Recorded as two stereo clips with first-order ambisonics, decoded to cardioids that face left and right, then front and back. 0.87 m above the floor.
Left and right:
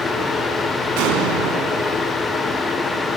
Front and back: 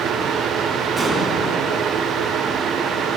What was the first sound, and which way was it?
An explosion, 100° right.